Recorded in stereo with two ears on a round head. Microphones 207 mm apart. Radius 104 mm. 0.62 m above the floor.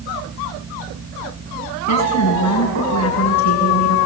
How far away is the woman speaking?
About 9.5 m.